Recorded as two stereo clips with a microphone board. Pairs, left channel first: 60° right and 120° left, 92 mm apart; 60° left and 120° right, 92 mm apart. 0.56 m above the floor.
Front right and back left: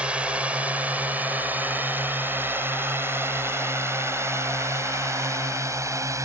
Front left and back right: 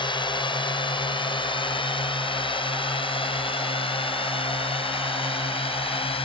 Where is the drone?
45° left; by 6.3 s 65° left.